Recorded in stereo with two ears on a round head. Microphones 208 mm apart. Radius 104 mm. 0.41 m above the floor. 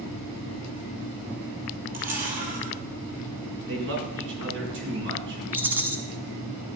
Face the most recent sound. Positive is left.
turn(degrees=-10)  # may be behind; listen again after turning